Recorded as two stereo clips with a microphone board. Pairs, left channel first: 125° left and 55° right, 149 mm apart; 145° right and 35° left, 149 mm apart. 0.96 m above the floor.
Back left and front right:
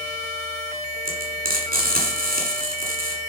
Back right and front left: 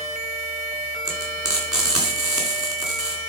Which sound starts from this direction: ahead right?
Frying, at 1.1 s.